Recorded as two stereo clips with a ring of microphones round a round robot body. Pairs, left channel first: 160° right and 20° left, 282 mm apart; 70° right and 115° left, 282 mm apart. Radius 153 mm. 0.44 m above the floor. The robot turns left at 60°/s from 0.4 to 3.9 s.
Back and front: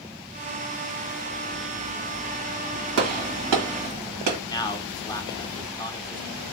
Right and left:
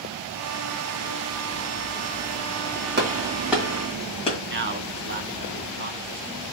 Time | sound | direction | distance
3.0 | a gunshot | 60° left | 1.7 m
4.5 | a man speaking | 135° left | 1.1 m